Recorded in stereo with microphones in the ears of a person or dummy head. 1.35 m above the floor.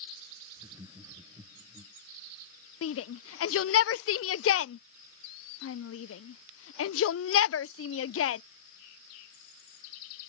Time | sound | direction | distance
0.6 | laughter | 20° right (ahead or behind) | ?
2.8 | a shout | 75° left (ahead or behind) | ?